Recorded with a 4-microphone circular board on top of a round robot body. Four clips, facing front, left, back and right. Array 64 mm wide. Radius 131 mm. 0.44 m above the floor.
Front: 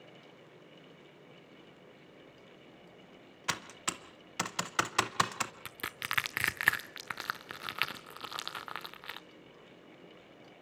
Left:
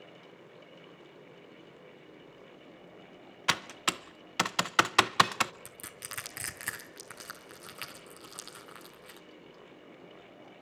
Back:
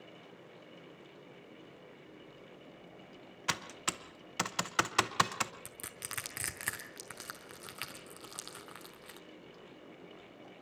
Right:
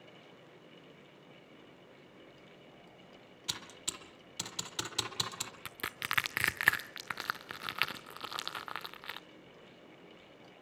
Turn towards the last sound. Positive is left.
turn(degrees=-45)